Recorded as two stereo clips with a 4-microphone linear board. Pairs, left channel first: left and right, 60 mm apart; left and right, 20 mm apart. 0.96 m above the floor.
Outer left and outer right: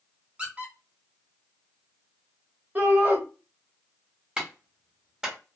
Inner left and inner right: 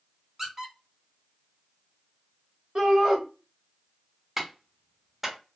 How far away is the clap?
About 1.2 m.